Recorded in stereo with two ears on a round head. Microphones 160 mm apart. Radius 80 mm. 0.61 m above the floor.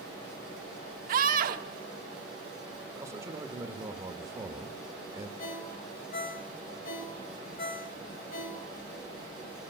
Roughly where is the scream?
Right.